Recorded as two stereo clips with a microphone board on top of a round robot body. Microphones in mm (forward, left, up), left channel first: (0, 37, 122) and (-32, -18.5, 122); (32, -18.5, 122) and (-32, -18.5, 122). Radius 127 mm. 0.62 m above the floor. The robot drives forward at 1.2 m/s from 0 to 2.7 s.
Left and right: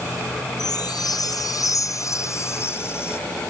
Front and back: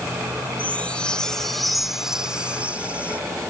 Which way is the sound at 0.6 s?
70° left.